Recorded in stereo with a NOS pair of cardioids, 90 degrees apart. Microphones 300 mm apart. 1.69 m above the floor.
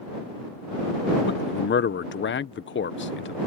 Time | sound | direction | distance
1.3 | a man speaking | 40° left | ?